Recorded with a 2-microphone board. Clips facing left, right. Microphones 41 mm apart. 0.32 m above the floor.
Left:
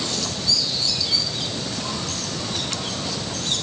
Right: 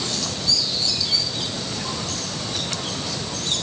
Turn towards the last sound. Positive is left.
No sound to turn to.